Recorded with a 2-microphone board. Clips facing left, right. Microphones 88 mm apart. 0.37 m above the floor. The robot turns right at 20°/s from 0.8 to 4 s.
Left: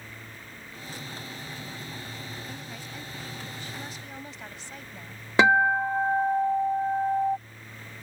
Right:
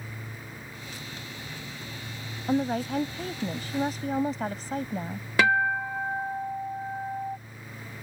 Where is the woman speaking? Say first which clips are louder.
Right 15 dB; 90° right; by 5.3 s 60° right.